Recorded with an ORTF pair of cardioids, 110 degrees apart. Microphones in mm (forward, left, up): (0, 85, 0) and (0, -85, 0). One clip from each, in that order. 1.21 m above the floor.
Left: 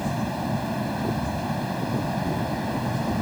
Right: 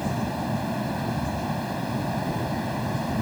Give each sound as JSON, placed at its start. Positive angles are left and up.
{"t": 0.0, "sound": "a fan", "azimuth_deg": 5}